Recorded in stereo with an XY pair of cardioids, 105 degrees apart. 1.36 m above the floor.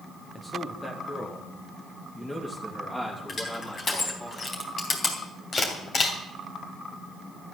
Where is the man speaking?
25° left, 1.5 m; by 4.3 s 15° left, 4 m.